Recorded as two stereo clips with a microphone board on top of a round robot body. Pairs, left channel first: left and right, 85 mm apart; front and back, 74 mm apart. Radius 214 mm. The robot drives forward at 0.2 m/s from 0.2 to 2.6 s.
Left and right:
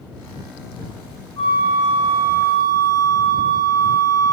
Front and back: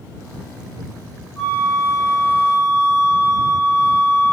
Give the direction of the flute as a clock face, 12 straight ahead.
9 o'clock.